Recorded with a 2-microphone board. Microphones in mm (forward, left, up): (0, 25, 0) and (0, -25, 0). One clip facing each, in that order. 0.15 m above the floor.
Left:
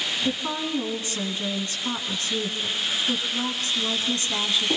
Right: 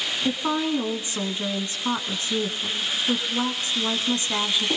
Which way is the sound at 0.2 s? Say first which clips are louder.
Right 7 dB; 25° right (ahead or behind).